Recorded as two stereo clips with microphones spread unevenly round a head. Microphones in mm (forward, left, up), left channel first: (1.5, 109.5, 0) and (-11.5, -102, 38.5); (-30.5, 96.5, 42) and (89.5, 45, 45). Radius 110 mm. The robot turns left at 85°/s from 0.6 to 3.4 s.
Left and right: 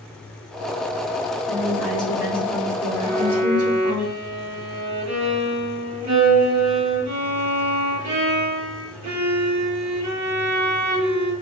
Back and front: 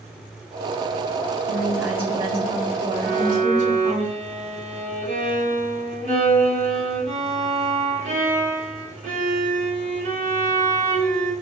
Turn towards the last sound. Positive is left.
turn(degrees=-75)